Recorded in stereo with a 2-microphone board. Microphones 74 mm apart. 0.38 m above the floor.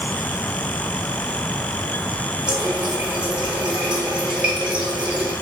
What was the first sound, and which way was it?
A running tap, 15° right (ahead or behind).